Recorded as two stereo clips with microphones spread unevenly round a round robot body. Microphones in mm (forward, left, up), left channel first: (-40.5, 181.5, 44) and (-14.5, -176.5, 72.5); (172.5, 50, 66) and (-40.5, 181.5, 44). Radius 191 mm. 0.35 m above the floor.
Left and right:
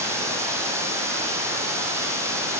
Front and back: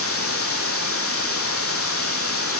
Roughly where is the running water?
Ahead.